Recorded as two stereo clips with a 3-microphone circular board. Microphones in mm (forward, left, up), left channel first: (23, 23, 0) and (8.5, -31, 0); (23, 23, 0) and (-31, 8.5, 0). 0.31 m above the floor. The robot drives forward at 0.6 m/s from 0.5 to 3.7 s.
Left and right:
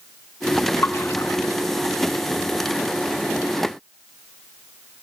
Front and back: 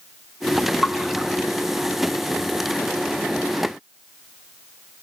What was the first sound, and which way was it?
A splash, 105° left.